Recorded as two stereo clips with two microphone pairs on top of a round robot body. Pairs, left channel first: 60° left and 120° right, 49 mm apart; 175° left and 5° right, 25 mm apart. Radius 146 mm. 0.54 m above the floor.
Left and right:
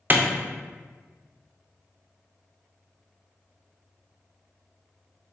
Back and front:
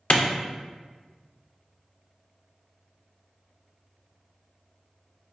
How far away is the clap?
About 0.5 m.